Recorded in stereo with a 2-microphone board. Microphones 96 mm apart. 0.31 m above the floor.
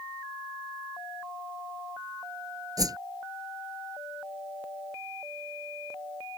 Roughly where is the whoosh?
Right.